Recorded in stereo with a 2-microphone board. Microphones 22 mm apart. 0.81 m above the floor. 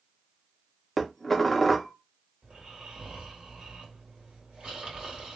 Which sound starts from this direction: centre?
Dishes clattering, at 1.0 s.